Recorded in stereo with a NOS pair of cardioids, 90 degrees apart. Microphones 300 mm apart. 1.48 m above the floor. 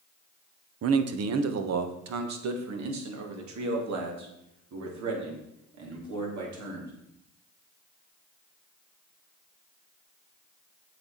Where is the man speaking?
50° right, 1.1 m; by 6.9 s 70° right, 5 m.